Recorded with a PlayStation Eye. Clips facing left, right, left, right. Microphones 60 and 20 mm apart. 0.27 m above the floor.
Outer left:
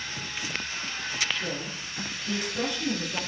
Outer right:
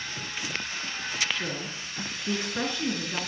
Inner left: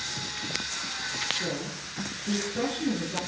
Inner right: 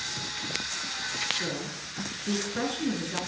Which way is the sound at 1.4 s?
35° right (ahead or behind).